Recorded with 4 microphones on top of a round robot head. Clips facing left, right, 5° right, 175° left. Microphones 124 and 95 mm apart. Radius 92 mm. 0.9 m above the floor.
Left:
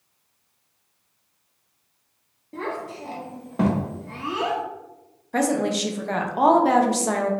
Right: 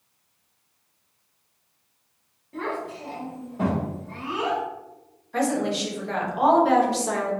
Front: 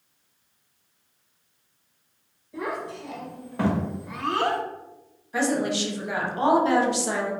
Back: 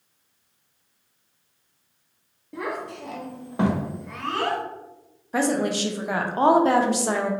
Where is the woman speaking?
130° left, 0.6 m.